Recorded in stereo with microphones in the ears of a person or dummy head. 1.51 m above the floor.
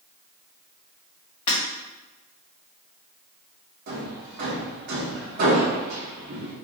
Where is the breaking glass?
35° left (ahead or behind), 1.9 m.